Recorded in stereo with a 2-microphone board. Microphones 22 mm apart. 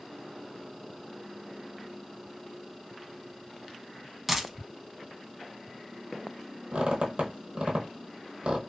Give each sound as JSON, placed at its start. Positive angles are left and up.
{"t": 4.3, "sound": "a dropped coin", "side_deg": -10, "distance_m": 0.6}
{"t": 6.7, "sound": "a squeak", "side_deg": -55, "distance_m": 0.8}